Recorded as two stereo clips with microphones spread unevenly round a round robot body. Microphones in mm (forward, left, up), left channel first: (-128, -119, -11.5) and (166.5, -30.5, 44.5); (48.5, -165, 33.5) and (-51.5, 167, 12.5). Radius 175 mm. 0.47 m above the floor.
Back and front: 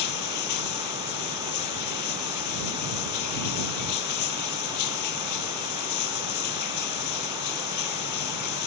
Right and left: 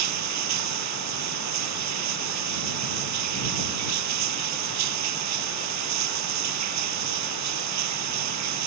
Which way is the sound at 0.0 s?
150° left.